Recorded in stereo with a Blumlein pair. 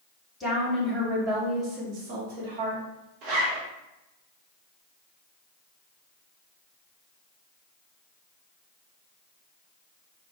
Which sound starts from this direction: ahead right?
A zipper, at 3.2 s.